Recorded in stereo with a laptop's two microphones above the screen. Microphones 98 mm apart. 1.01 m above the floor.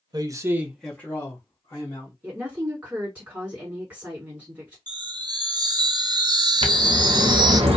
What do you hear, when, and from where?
0.1 s a man speaking: 45° right (ahead or behind), 0.7 m; by 2.1 s 40° left (ahead or behind), 1.5 m
2.2 s a woman speaking: 15° right (ahead or behind), 1.7 m
4.9 s a chime: 50° right (ahead or behind), 0.5 m
6.6 s a bird: 80° right, 0.6 m